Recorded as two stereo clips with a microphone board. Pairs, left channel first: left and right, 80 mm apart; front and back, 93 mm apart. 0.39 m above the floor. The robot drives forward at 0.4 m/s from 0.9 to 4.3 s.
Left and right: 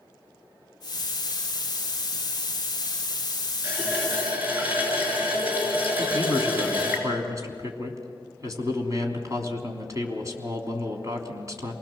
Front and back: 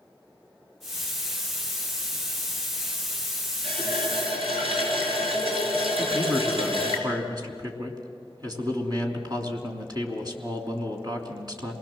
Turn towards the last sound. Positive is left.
turn(degrees=-135)